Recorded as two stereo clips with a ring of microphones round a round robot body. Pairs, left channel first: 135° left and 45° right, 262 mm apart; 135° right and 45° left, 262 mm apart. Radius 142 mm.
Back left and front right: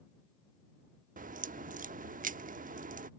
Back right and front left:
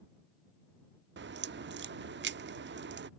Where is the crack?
10° left.